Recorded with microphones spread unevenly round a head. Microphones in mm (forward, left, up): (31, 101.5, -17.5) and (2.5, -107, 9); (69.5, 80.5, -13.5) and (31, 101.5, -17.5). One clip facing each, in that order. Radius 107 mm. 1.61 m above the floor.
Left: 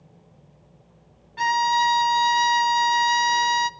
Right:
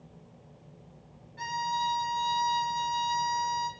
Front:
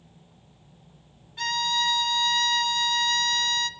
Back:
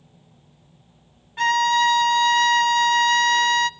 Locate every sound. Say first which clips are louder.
1.4 s a violin: left 11 dB, back 9 dB; 100° left, 1.0 m